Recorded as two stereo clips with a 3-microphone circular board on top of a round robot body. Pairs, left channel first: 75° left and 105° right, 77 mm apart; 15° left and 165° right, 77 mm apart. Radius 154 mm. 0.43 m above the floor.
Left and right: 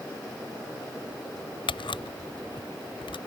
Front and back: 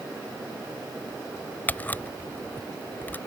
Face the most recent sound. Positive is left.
turn(degrees=85)